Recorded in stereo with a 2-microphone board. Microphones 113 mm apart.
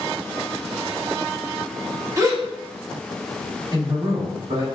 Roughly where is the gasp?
Right.